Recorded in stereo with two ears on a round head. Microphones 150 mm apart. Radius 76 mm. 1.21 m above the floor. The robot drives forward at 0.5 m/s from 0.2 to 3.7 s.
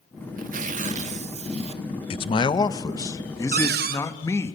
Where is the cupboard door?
55° right (ahead or behind), 1.5 m; by 4.0 s 60° right (ahead or behind), 1.4 m.